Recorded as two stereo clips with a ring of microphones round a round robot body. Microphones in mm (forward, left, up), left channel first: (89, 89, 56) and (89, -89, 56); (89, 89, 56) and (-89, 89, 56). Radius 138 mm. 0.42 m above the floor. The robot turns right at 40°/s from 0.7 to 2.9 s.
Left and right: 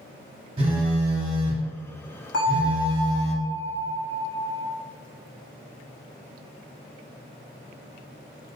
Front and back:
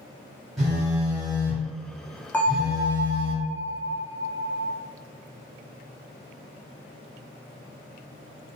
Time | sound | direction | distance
0.6 | a phone buzzing | 90° right | 1.5 m
2.3 | a bell | 80° left | 0.7 m